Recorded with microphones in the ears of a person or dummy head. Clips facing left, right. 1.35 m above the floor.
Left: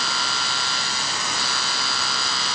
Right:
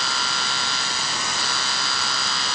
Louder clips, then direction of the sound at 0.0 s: Even; centre (ahead or behind).